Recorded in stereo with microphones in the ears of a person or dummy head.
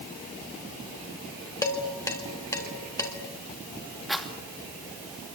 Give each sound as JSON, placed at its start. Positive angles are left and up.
{"t": 1.6, "sound": "dishes clattering", "side_deg": 10, "distance_m": 2.5}
{"t": 4.1, "sound": "a rattle", "side_deg": 0, "distance_m": 2.5}